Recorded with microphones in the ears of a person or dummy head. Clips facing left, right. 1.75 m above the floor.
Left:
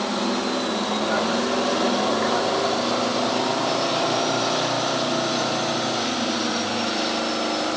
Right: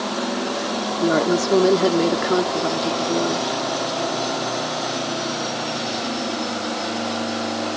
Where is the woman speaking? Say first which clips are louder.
Right 8 dB; 60° right (ahead or behind).